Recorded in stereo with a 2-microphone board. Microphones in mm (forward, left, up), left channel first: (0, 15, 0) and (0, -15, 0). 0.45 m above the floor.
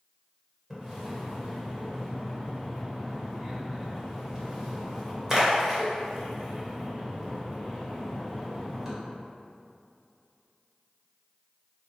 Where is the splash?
15° right (ahead or behind), 1.4 m.